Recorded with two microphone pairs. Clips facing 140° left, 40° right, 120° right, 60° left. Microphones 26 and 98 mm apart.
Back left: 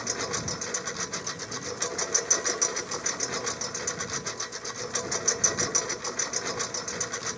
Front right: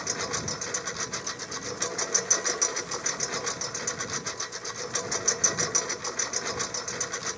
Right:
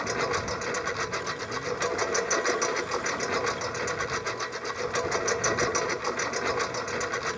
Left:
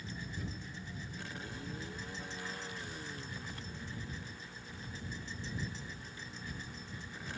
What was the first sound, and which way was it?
A lawn mower, 125° right.